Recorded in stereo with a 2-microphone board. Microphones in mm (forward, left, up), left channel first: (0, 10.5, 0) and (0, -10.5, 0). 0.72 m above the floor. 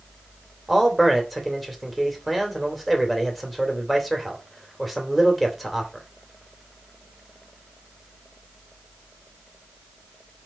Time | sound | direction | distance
0.7 | a man speaking | 5° left (ahead or behind) | 3 m